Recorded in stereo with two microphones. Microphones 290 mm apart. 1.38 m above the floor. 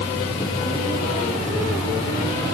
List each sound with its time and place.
Only background noise.